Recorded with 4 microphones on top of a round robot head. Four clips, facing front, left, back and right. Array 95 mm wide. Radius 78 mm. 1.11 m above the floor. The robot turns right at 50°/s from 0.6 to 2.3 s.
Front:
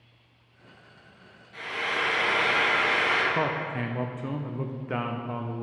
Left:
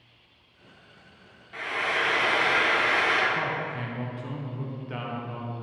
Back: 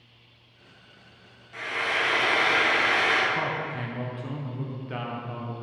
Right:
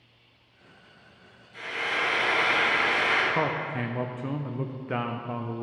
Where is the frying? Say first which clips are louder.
Left 2 dB, back 2 dB; 105° left, 3 m; by 3.2 s 145° left, 3 m.